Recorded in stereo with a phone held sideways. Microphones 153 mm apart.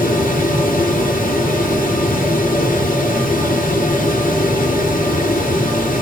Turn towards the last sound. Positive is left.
turn(degrees=75)  # may be behind; listen again after turning